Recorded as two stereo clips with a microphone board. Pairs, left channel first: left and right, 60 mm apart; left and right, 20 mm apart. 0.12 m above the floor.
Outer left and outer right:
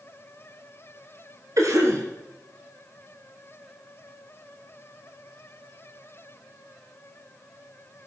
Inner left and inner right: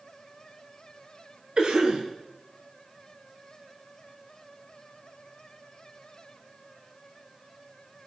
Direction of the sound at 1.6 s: 55° right (ahead or behind).